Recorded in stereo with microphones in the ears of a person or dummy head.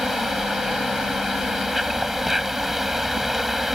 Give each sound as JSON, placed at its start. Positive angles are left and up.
{"t": 0.0, "sound": "an insect", "side_deg": -5}